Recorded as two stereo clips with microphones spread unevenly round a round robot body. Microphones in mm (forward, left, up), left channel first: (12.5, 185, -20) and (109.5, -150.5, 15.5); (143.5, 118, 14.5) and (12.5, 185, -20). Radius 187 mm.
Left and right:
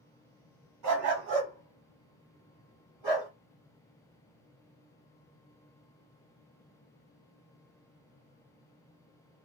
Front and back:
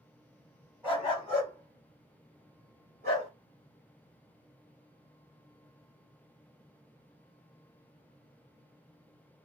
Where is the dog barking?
120° right, 1.7 m; by 3.3 s 155° right, 2.5 m.